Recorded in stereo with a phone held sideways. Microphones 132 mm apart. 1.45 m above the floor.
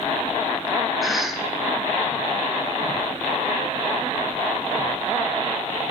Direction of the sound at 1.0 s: Centre (ahead or behind).